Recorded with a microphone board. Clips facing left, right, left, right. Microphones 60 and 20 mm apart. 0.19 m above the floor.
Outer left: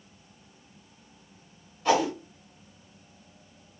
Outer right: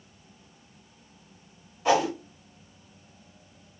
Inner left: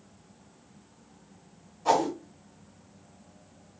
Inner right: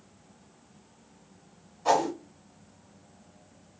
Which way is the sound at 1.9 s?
15° right (ahead or behind).